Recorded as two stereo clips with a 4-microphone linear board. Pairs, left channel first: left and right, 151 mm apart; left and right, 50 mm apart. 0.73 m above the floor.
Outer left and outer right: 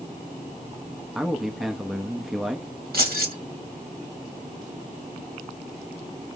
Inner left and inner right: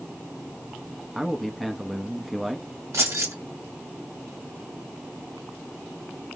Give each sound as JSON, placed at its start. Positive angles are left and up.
{"t": 1.1, "sound": "a man speaking", "side_deg": 0, "distance_m": 0.7}
{"t": 2.9, "sound": "keys jangling", "side_deg": -75, "distance_m": 1.5}